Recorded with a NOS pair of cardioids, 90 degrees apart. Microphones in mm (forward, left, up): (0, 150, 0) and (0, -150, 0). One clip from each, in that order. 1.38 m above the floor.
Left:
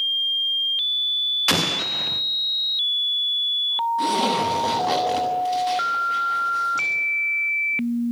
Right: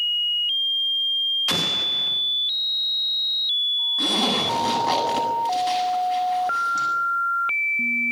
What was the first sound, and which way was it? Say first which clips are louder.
An explosion: even; 40° left.